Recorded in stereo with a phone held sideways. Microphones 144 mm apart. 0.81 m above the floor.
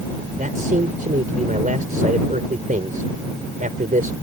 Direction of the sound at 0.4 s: 70° right (ahead or behind).